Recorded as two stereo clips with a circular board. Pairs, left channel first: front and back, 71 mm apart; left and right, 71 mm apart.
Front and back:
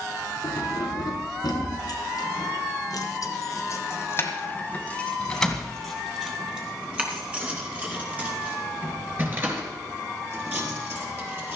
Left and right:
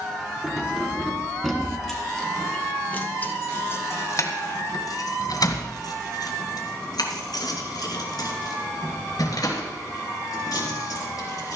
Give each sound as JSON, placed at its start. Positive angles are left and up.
{"t": 0.4, "sound": "keys jangling", "azimuth_deg": -10, "distance_m": 3.0}